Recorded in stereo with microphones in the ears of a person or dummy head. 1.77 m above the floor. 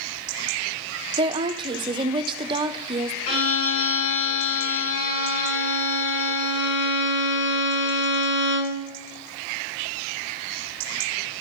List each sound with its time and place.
1.2 s a woman speaking: 25° right (ahead or behind), 0.7 m
3.3 s a violin: 70° left (ahead or behind), 6 m